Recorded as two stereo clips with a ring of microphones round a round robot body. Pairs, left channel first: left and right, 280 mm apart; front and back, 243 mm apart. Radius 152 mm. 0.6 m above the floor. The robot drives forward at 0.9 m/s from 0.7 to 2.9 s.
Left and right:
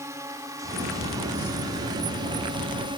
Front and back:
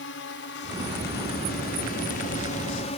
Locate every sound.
0.0 s a drone: 15° right; by 3.0 s 35° right